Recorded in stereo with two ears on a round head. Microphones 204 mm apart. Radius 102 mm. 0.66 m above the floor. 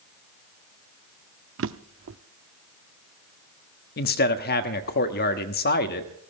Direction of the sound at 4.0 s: 45° left (ahead or behind).